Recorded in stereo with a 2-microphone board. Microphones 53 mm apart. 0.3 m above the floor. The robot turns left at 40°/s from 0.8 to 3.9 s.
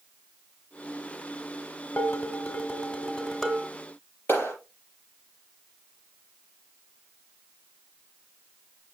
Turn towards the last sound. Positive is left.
turn(degrees=45)  # may be behind; listen again after turning